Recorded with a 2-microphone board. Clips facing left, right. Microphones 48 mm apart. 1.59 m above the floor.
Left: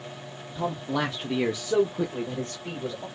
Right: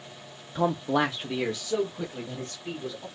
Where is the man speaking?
60° right (ahead or behind), 0.5 m; by 3.1 s 45° left (ahead or behind), 1.9 m.